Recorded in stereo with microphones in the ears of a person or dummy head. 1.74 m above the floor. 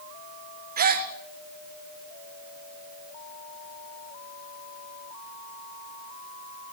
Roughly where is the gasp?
Right.